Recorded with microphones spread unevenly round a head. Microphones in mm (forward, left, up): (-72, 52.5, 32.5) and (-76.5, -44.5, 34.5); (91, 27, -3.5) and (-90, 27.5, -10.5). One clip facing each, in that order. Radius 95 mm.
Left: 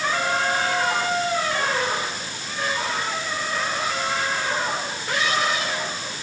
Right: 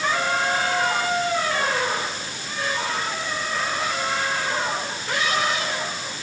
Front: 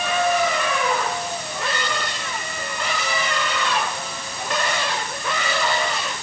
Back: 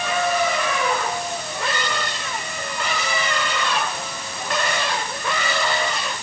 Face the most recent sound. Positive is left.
No sound to turn to.